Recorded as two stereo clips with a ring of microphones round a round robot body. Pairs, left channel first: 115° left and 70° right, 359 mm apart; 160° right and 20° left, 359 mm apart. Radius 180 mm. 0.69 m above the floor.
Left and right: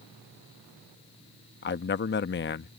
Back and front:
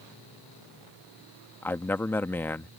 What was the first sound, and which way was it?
A man speaking, 125° left.